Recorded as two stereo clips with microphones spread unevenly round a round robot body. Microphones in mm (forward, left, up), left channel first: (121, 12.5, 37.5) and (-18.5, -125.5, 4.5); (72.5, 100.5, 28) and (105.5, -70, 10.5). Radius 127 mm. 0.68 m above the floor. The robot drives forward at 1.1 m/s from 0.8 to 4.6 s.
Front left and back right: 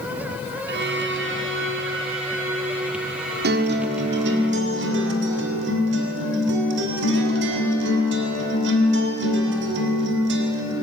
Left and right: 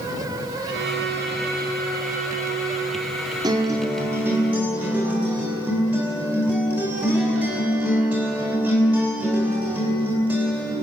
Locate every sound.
0.7 s a violin: 110° right, 2.5 m; by 4.4 s 155° right, 5 m
3.4 s a guitar: 145° right, 2.0 m; by 10.7 s 160° right, 3 m